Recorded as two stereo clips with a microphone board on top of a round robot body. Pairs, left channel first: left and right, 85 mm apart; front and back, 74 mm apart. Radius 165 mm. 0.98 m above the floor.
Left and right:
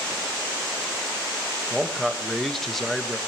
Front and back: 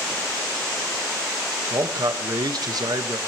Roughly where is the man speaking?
Behind.